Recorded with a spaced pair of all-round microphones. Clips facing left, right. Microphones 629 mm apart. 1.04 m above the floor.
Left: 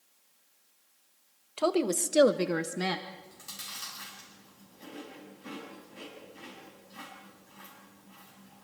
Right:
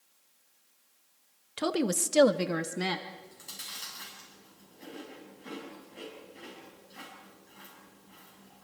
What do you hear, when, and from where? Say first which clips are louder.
1.6 s a woman speaking: left 2 dB; 45° right (ahead or behind), 1.1 m; by 3.0 s 5° left (ahead or behind), 1.3 m
3.1 s chewing: even; 35° left (ahead or behind), 7 m